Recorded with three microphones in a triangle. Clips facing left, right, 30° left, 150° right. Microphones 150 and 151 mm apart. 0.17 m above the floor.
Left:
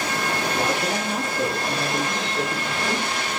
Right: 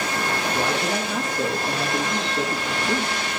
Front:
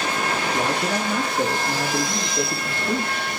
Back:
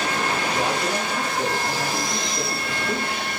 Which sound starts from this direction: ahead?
A man speaking, at 0.5 s.